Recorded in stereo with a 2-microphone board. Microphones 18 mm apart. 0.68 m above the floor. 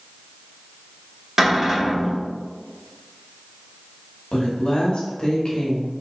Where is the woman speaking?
60° left (ahead or behind), 1.0 m.